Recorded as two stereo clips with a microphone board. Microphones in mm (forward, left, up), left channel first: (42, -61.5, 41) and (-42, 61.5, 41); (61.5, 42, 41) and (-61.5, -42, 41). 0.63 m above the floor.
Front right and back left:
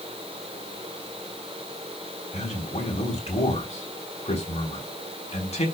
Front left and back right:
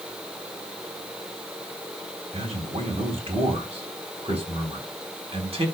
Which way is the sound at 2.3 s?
95° right.